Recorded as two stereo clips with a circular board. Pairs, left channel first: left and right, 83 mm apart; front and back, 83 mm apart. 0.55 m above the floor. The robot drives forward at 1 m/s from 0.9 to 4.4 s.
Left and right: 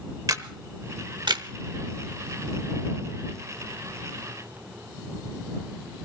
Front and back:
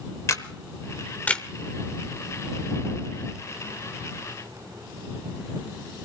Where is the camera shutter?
50° right, 1.0 m; by 1.4 s 85° right, 0.8 m.